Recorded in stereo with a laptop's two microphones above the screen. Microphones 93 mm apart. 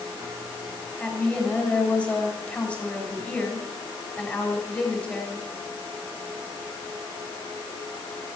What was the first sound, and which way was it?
A woman speaking, 15° left (ahead or behind).